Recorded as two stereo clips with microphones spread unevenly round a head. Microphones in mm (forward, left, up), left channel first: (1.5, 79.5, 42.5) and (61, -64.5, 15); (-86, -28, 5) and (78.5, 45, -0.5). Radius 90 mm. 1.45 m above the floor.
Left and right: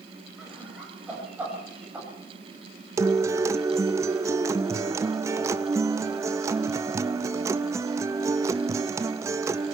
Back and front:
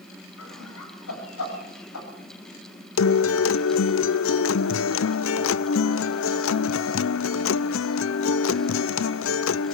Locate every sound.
0.4 s laughter: 155° right, 8 m; by 2.1 s 150° right, 9.5 m
3.0 s a guitar: 140° right, 0.5 m